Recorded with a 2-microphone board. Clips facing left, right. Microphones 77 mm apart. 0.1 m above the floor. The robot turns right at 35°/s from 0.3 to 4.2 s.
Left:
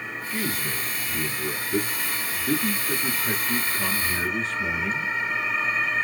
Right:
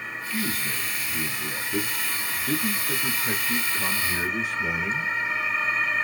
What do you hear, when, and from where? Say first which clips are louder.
0.3 s a man speaking: even; 20° left (ahead or behind), 1.1 m; by 5.1 s 5° right (ahead or behind), 1.1 m